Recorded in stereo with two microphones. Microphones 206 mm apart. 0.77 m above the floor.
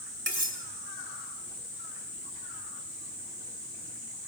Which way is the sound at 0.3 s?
65° right (ahead or behind).